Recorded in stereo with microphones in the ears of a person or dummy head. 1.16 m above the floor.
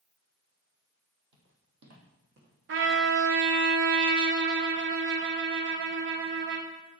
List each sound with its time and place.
1.3 s footsteps: 50° right (ahead or behind), 2.0 m; by 3.5 s 40° right (ahead or behind), 3 m
2.7 s a trumpet: 50° right (ahead or behind), 0.6 m